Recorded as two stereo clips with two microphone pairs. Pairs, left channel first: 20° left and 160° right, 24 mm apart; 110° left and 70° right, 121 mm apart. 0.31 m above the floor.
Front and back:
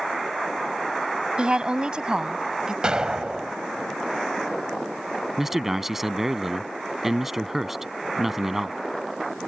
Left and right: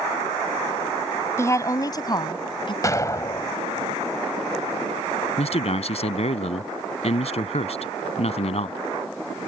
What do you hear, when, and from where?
1.4 s a woman speaking: 175° left; by 2.7 s 150° left
2.8 s an explosion: 165° left
5.4 s a man speaking: 130° left